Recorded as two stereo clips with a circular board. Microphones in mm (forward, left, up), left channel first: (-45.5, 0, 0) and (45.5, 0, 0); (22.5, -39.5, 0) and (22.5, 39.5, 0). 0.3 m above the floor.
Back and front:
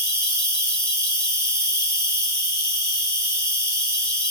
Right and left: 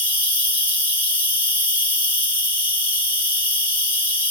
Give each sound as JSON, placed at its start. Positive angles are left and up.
{"t": 0.0, "sound": "an insect", "azimuth_deg": 35, "distance_m": 1.7}